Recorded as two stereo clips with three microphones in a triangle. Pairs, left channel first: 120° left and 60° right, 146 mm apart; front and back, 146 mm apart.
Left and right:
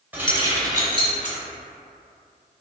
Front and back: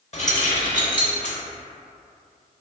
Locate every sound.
0.1 s keys jangling: 15° left, 0.8 m; by 1.4 s 10° right, 1.4 m